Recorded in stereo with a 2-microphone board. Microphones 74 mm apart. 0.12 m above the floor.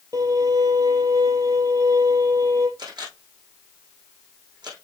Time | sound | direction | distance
0.1 | a violin | 50° right (ahead or behind) | 3 m
2.8 | a camera shutter | 70° right (ahead or behind) | 4.5 m